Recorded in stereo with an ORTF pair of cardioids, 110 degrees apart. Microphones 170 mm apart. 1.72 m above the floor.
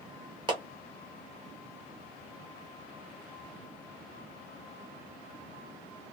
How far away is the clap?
About 1.4 m.